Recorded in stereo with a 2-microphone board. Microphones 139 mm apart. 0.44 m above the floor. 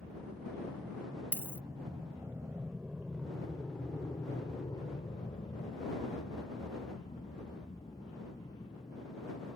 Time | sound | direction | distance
0.0 | an aircraft | 25° right (ahead or behind) | ?
1.3 | a dropped coin | 15° right (ahead or behind) | ?